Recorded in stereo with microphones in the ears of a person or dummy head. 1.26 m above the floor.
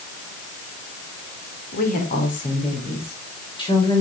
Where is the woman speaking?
50° left (ahead or behind), 3.5 m; by 4.0 s 25° left (ahead or behind), 4 m.